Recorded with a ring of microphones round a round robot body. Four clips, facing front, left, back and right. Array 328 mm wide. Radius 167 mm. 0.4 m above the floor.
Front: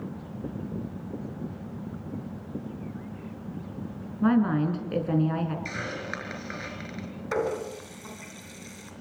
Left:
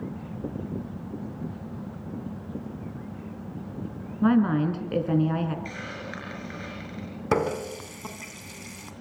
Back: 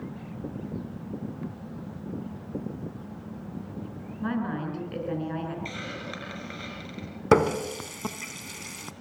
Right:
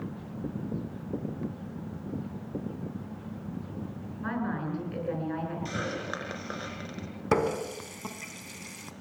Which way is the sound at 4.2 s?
65° left.